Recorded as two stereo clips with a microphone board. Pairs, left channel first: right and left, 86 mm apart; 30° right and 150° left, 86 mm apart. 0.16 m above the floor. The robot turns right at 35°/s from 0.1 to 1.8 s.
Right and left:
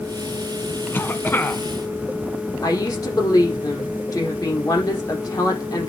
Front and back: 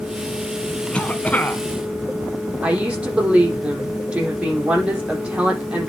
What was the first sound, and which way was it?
A cough, 85° right.